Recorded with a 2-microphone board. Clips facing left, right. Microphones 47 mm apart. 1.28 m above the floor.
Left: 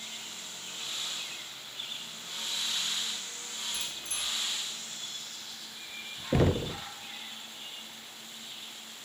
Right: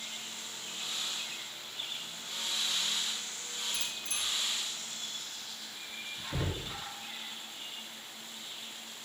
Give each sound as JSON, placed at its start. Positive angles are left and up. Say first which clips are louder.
{"t": 3.7, "sound": "a bicycle bell", "louder": "even", "side_deg": 25, "distance_m": 5.5}
{"t": 6.3, "sound": "knocking", "louder": "left 12 dB", "side_deg": 70, "distance_m": 0.6}